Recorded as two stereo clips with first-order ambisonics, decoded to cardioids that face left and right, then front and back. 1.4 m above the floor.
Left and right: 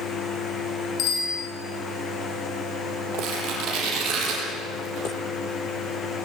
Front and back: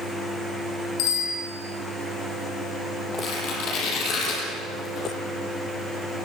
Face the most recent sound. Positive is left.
turn(degrees=-50)